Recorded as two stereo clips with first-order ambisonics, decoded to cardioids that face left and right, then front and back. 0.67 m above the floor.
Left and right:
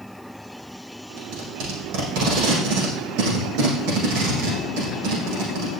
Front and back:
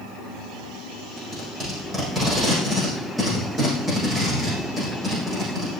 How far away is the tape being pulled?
About 7 m.